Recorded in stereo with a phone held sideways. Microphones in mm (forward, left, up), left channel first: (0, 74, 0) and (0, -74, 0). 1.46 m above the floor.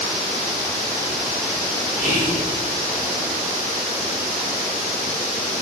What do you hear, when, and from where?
2.0 s whispering: 55° left (ahead or behind), 5.5 m